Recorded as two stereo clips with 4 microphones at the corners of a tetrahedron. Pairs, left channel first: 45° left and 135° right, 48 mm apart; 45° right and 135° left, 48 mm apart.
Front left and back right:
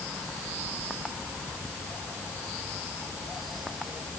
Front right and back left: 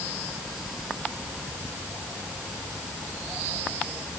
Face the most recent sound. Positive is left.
No sound to turn to.